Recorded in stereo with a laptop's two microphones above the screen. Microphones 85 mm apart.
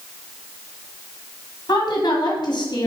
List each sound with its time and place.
1.7 s a woman speaking: 55° left (ahead or behind), 1.6 m